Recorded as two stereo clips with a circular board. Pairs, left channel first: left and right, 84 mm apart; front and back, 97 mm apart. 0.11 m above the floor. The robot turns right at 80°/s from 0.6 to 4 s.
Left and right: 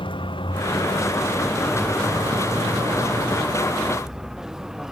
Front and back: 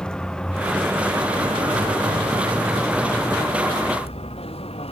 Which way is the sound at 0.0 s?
80° left.